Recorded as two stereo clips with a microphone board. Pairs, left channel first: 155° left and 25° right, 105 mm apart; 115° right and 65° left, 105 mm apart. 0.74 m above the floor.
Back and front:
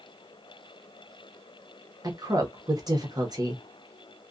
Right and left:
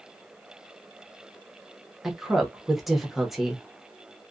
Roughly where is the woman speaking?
Ahead.